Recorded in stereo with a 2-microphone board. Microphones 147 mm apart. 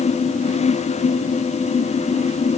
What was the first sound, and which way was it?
Only background noise.